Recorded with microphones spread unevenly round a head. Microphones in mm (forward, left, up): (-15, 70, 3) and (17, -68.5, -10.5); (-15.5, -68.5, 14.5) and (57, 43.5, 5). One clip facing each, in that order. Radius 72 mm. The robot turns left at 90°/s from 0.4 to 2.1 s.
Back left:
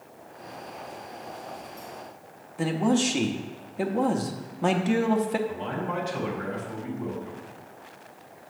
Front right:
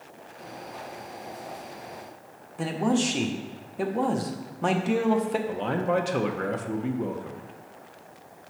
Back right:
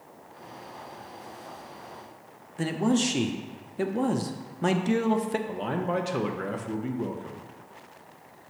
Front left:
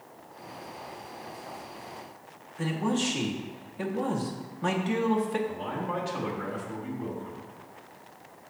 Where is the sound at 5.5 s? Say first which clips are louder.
Front right 5 dB, back right 4 dB; 105° right, 0.9 m.